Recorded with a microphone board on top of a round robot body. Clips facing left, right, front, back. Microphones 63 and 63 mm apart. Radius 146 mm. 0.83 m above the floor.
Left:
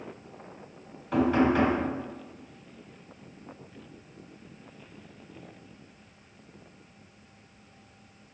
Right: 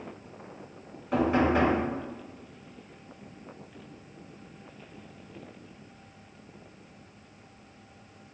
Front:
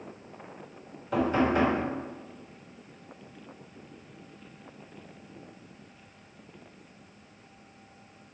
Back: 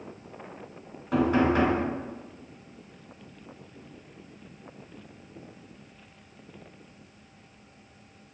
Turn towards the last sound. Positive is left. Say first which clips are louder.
# left 1 dB, back 2 dB
turn(degrees=-170)